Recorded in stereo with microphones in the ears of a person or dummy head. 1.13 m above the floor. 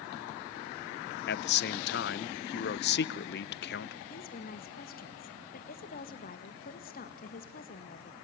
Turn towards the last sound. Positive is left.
turn(degrees=50)  # may be behind; listen again after turning